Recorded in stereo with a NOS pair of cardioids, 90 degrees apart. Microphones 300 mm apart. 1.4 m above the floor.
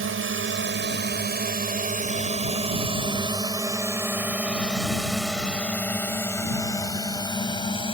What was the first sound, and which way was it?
A drone, 45° right.